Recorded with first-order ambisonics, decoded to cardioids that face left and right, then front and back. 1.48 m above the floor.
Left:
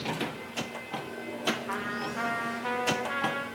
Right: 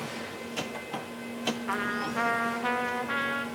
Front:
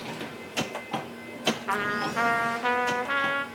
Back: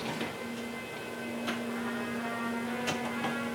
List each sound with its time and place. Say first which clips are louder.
1.7 s a trumpet: right 3 dB, front 8 dB; 15° right, 2.5 m